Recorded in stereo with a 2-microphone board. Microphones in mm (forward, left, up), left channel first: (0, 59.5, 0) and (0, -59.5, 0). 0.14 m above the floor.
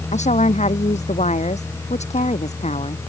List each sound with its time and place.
0.1 s a woman speaking: 75° left (ahead or behind); by 3.0 s 70° left (ahead or behind)